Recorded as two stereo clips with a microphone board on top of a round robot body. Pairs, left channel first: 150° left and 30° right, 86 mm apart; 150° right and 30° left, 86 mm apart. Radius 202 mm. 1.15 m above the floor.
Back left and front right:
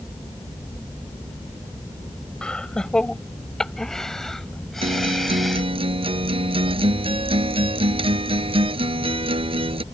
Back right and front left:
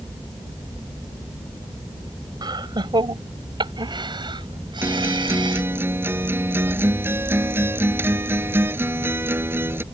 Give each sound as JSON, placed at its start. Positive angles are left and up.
{"t": 2.4, "sound": "laughter", "azimuth_deg": 70}
{"t": 4.8, "sound": "a guitar", "azimuth_deg": -35}